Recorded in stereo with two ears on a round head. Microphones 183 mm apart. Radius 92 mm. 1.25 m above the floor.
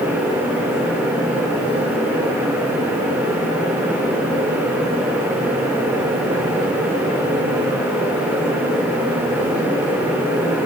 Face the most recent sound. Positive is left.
No sound to turn to.